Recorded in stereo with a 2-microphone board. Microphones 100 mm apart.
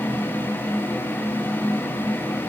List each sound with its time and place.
Only background noise.